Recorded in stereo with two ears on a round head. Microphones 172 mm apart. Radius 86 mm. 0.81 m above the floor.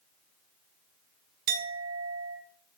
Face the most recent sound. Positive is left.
turn(degrees=-55)  # may be behind; listen again after turning